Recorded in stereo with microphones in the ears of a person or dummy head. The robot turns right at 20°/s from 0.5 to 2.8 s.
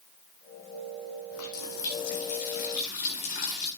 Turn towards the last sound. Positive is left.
turn(degrees=40)  # may be behind; listen again after turning